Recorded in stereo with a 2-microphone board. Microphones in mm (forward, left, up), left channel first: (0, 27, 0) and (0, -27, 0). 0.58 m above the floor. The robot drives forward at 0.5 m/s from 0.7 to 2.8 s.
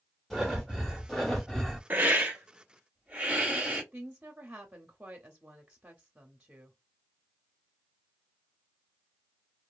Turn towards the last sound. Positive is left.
turn(degrees=-20)  # may be behind; listen again after turning